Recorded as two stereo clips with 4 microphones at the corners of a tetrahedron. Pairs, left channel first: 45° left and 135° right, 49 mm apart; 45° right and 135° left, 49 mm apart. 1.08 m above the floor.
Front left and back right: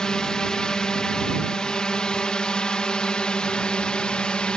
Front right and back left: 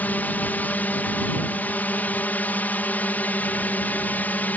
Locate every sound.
0.0 s a drone: 25° right; by 4.6 s 20° right